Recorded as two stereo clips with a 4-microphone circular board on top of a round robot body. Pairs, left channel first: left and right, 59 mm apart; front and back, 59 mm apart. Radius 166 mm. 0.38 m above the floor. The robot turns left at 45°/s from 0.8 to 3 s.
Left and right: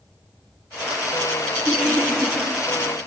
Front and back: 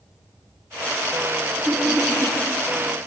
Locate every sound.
1.7 s laughter: 150° right, 1.4 m; by 2.4 s straight behind, 1.4 m